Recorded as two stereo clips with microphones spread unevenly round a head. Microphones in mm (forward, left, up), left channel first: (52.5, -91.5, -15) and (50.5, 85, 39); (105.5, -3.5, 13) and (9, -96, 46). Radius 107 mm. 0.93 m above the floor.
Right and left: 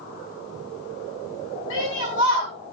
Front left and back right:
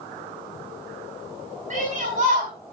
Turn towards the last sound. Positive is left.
turn(degrees=-110)